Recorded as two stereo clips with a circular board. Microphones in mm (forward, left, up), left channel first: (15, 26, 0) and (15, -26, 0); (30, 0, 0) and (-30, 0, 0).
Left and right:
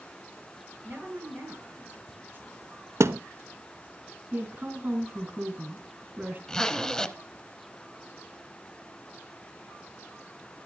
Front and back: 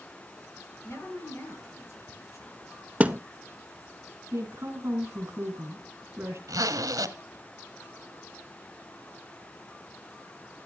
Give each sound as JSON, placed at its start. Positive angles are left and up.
{"t": 0.8, "sound": "a woman speaking", "azimuth_deg": -40, "distance_m": 5.5}
{"t": 3.0, "sound": "a thud", "azimuth_deg": -115, "distance_m": 0.5}
{"t": 4.3, "sound": "a woman speaking", "azimuth_deg": -145, "distance_m": 3.0}
{"t": 6.5, "sound": "a zipper", "azimuth_deg": 170, "distance_m": 0.8}